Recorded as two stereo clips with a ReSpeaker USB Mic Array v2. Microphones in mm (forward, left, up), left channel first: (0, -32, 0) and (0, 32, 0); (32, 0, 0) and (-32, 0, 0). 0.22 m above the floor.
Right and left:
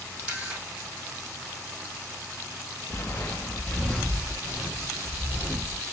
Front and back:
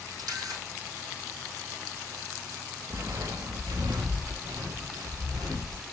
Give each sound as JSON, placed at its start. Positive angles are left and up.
{"t": 0.2, "sound": "a camera shutter", "azimuth_deg": 155, "distance_m": 3.0}
{"t": 2.9, "sound": "footsteps", "azimuth_deg": -140, "distance_m": 0.8}